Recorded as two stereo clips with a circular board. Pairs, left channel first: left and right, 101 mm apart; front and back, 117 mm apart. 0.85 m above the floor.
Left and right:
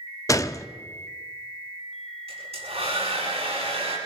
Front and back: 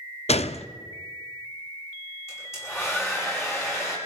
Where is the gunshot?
30° left, 0.6 m.